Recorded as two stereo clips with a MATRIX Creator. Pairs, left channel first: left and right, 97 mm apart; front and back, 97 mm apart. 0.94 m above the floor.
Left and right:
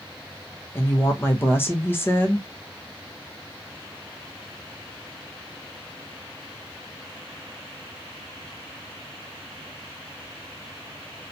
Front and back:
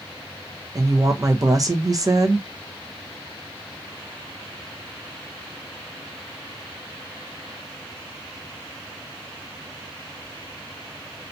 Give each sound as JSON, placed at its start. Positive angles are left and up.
{"t": 0.8, "sound": "a woman speaking", "azimuth_deg": 150, "distance_m": 0.7}